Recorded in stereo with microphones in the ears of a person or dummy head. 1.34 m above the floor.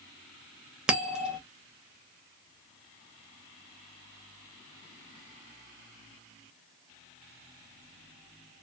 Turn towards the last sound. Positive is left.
turn(degrees=-5)  # may be behind; listen again after turning